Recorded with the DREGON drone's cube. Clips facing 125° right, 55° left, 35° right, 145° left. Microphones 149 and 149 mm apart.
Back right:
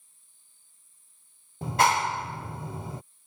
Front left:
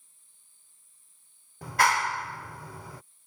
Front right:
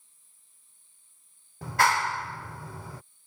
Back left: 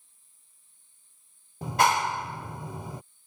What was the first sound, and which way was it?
A clap, 165° right.